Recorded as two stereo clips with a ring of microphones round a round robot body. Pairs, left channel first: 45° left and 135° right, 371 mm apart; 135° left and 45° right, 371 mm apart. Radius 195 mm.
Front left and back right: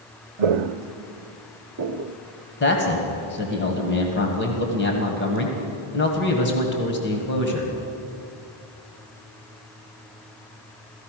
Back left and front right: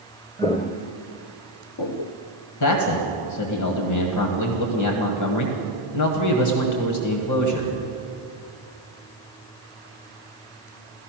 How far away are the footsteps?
About 0.9 m.